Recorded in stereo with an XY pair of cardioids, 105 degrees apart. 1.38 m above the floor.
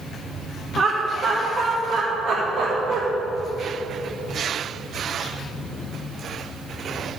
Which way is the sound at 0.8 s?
45° right.